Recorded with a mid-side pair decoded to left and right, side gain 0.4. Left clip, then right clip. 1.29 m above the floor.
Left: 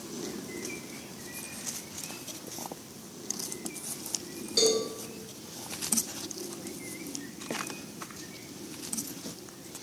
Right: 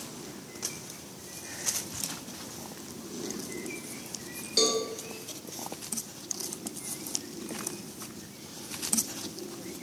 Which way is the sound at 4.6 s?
10° right.